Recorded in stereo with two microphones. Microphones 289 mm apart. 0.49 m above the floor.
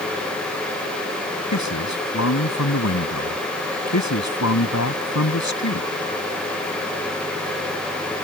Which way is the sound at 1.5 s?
70° left (ahead or behind).